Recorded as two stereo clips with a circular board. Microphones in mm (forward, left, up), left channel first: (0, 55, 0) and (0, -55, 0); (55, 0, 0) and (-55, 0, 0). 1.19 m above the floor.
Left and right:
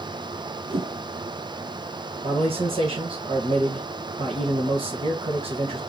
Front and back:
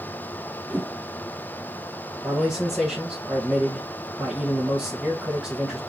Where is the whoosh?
105° right, 0.7 m.